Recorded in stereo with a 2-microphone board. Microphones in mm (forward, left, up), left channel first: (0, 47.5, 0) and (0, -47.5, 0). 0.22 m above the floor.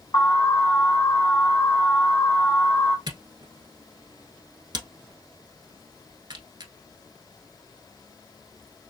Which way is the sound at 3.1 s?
50° right (ahead or behind).